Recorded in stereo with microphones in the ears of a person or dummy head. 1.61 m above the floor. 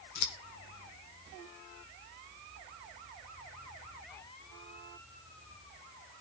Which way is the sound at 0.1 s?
60° left (ahead or behind).